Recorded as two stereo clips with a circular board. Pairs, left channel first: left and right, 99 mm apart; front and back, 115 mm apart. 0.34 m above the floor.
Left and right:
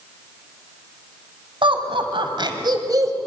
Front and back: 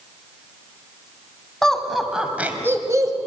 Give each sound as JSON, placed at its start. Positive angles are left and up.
{"t": 1.6, "sound": "laughter", "azimuth_deg": -85, "distance_m": 3.0}